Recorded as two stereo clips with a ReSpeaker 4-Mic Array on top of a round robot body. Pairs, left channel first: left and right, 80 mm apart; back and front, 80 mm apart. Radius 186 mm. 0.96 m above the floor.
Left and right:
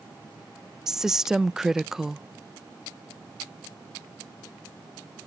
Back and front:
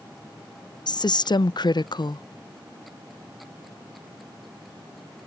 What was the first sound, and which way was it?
A woman speaking, 175° right.